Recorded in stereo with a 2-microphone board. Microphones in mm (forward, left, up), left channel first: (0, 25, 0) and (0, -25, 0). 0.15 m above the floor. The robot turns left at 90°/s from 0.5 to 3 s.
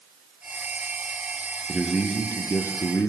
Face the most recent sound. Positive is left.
turn(degrees=75)